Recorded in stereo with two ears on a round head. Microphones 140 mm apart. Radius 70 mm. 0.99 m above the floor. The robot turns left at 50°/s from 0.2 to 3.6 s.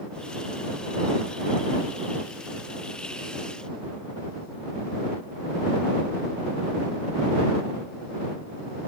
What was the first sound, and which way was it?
Only background noise.